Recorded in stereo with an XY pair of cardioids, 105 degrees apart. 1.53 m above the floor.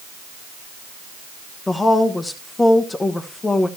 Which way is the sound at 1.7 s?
25° left.